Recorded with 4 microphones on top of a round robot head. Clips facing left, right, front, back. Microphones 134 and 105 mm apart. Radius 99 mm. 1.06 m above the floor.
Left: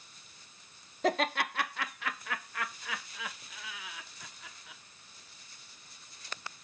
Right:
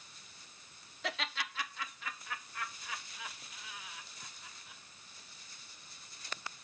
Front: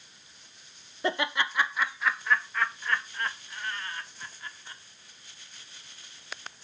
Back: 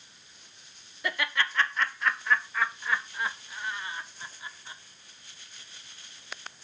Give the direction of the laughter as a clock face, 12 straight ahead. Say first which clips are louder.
Left 11 dB, front 2 dB; 10 o'clock.